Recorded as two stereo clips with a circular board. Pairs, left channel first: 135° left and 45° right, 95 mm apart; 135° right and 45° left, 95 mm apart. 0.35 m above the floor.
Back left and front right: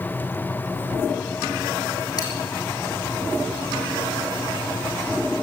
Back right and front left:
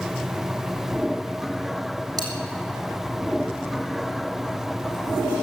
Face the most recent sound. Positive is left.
turn(degrees=90)